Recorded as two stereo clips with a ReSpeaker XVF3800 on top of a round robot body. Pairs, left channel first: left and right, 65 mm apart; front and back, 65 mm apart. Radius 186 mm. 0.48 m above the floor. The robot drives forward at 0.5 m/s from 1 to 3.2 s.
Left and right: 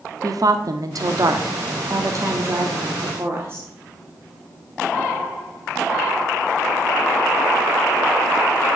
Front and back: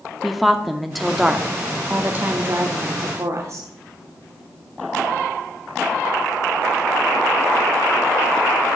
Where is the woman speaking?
90° right, 1.2 m; by 3.7 s 140° right, 1.6 m.